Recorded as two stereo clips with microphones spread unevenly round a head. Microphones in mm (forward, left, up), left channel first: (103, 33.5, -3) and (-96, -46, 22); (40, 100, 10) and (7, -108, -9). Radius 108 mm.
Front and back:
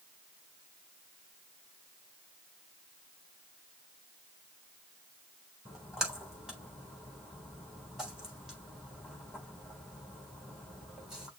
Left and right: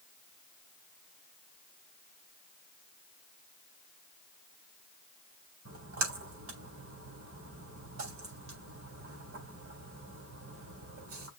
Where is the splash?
70° right, 3.5 m.